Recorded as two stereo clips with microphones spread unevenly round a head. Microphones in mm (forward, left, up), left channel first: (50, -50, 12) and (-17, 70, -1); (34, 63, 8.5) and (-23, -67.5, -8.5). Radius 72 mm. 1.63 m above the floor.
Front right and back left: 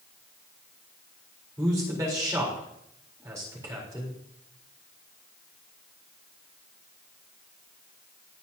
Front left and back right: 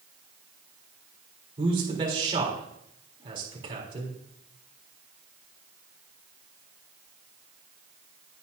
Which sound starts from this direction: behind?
A man speaking, at 1.6 s.